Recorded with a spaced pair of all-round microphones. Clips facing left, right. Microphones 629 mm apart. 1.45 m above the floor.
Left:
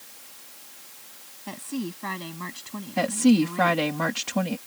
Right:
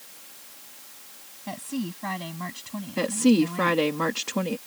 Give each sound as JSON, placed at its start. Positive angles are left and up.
{"t": 1.5, "sound": "a woman speaking", "side_deg": -15}
{"t": 3.0, "sound": "a woman speaking", "side_deg": 15}